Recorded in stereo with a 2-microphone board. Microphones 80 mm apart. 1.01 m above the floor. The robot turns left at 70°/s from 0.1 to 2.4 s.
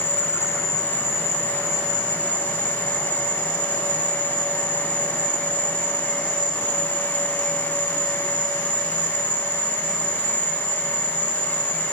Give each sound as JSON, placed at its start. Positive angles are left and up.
{"t": 0.0, "sound": "an insect", "azimuth_deg": -105, "distance_m": 3.0}